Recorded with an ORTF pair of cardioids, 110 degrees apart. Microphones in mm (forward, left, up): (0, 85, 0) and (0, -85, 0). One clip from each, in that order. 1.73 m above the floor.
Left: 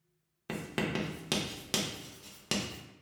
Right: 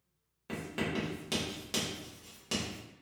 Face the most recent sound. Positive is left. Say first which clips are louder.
# left 1 dB
turn(degrees=35)